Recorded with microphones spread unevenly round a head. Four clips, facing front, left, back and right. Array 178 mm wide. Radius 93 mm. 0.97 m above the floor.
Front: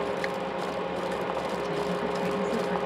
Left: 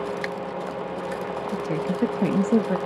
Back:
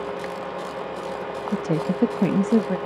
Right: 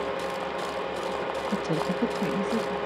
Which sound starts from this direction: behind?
A woman speaking, at 1.5 s.